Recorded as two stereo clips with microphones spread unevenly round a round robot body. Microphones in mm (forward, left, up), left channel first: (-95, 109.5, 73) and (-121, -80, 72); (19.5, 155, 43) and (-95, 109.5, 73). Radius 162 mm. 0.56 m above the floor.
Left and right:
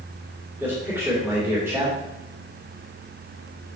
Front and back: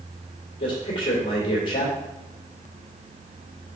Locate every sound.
0.6 s a man speaking: 20° right, 2 m